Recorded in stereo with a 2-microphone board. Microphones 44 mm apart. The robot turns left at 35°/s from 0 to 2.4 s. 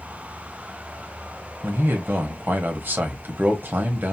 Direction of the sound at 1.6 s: 55° right (ahead or behind).